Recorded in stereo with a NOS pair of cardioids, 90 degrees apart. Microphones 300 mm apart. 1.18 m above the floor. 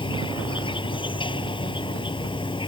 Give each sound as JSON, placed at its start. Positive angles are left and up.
{"t": 0.0, "sound": "an insect", "azimuth_deg": 15}